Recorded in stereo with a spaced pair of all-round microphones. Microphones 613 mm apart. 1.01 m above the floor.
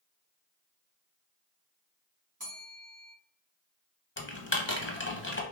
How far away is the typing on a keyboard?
About 0.7 m.